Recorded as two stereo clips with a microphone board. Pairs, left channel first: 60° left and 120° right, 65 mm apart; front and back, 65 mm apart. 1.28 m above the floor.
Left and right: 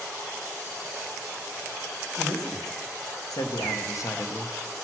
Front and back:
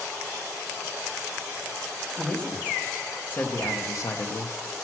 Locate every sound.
2.2 s a man speaking: 75° left, 1.9 m; by 4.5 s 5° left, 0.8 m